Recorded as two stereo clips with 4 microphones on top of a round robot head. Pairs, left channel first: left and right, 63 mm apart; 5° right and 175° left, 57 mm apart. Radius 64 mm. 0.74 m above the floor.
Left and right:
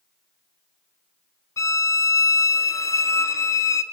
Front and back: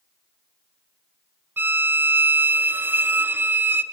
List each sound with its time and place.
1.6 s a violin: 125° left, 0.7 m